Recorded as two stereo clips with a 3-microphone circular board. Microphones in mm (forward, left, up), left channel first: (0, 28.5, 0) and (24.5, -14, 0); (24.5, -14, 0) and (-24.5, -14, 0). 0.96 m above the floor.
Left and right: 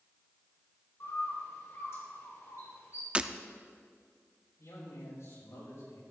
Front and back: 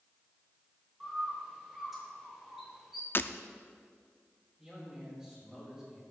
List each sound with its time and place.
1.0 s a bird: 95° left, 3.5 m
3.1 s breaking glass: 5° right, 0.5 m
4.6 s a man speaking: 100° left, 6 m